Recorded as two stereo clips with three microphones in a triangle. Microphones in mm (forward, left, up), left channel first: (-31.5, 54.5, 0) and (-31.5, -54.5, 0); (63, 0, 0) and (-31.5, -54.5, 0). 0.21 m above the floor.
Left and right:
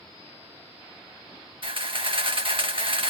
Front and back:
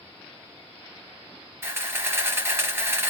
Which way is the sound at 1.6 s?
85° right.